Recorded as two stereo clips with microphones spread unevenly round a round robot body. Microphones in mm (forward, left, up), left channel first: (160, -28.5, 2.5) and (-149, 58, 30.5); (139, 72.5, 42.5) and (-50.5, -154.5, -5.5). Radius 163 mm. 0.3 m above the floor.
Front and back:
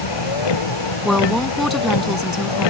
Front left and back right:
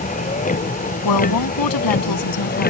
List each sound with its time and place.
0.0 s a vehicle: 15° right; by 2.7 s 10° right
1.1 s a woman speaking: 75° left